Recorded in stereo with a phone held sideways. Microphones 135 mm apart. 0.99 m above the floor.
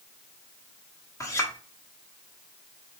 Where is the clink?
25° left (ahead or behind), 1.0 m.